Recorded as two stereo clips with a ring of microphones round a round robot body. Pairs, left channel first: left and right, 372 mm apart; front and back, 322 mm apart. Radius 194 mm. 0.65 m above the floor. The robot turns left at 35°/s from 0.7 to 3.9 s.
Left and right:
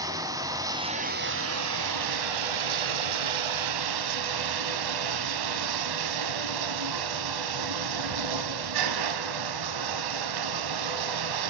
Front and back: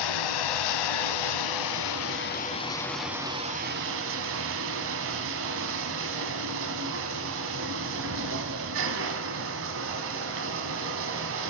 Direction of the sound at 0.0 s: 10° right.